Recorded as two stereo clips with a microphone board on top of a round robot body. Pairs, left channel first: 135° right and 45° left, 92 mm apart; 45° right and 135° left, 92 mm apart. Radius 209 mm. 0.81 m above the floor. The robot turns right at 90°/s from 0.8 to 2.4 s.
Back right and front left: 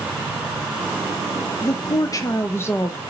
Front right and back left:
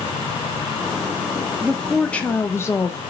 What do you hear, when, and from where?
1.6 s a woman speaking: 160° right, 0.6 m; by 3.0 s 90° right, 0.6 m